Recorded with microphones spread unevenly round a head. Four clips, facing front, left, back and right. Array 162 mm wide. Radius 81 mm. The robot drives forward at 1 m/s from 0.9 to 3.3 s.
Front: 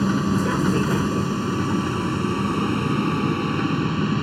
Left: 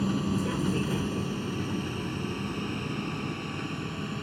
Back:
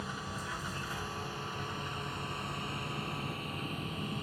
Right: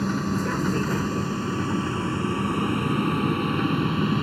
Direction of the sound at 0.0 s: 5° right.